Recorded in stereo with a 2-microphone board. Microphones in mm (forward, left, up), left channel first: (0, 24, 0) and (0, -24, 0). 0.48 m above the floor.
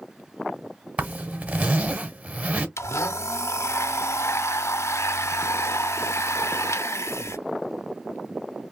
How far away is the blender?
About 0.7 m.